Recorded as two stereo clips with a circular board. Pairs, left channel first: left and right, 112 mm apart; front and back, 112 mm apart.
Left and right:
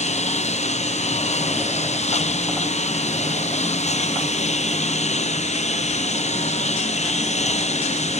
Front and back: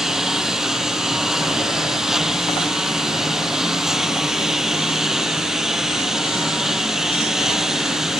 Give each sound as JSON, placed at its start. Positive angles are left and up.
{"t": 0.0, "sound": "a lawn mower", "azimuth_deg": 95}